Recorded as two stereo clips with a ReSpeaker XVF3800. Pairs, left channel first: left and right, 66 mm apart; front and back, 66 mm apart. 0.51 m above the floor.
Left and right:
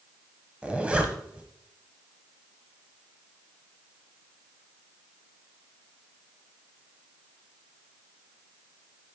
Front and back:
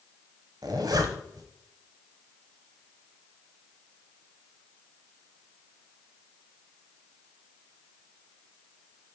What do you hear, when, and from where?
0.6 s a zipper: 160° right, 1.0 m